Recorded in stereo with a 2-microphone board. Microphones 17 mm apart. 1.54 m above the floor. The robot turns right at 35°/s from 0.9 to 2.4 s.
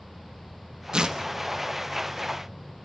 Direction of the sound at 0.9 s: 55° right (ahead or behind).